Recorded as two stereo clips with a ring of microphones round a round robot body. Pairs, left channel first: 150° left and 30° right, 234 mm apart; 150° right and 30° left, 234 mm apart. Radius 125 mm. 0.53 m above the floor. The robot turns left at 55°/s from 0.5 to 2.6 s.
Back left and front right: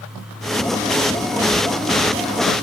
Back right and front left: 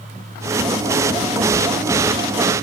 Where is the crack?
I don't hear a crack.